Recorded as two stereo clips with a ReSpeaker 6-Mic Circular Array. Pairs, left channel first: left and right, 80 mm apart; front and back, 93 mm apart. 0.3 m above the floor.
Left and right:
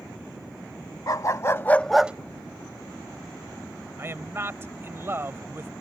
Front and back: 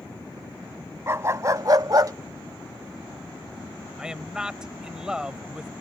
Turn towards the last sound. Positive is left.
turn(degrees=-105)